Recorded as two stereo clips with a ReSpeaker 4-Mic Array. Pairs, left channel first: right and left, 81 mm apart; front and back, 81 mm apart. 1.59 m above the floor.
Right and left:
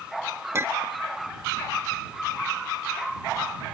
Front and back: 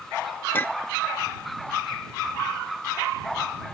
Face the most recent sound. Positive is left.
turn(degrees=55)